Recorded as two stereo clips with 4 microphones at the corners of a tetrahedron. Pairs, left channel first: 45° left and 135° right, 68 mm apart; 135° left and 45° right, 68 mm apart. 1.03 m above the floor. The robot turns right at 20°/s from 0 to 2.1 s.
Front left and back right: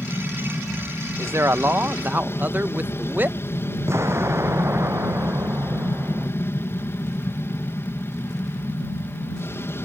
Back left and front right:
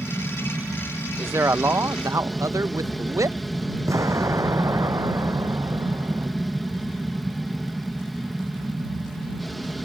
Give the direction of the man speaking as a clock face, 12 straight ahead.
3 o'clock.